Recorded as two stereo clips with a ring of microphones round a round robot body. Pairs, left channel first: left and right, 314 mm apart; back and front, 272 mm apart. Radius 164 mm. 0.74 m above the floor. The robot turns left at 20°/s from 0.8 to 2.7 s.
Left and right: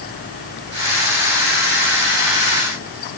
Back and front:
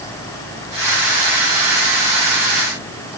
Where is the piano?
I don't hear a piano.